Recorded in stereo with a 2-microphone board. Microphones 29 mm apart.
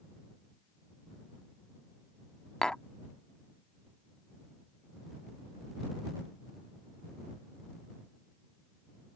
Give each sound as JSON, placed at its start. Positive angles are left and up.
{"t": 2.6, "sound": "tapping", "side_deg": 25}